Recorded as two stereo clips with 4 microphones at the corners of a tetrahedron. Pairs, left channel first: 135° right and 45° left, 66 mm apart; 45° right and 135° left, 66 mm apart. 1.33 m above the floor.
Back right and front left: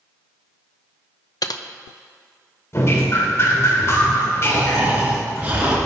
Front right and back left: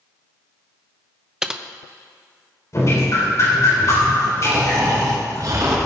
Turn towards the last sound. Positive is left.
turn(degrees=110)